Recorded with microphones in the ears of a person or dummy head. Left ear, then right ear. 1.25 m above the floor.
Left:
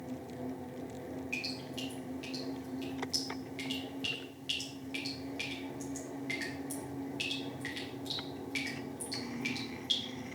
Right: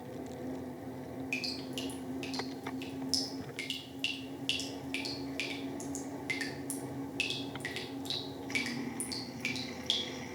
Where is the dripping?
30° right (ahead or behind), 1.4 m.